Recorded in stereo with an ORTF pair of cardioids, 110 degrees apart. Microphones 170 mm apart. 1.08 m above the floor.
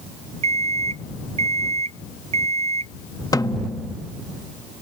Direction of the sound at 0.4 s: 40° right.